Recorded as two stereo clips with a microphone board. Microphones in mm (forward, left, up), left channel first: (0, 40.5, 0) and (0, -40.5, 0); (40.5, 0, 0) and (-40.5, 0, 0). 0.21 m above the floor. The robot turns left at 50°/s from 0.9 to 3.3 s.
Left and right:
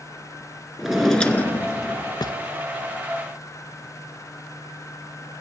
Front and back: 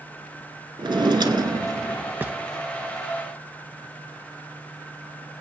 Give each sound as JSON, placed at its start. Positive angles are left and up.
{"t": 0.8, "sound": "a drawer", "azimuth_deg": -175, "distance_m": 0.6}